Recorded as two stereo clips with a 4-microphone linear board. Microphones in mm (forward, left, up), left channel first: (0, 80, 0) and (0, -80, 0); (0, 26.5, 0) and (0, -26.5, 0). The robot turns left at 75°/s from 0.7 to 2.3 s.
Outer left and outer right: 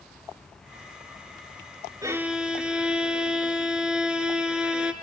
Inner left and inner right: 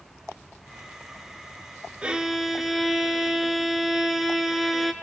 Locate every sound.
2.0 s a violin: 20° right (ahead or behind), 0.5 m; by 4.9 s 5° right (ahead or behind), 0.5 m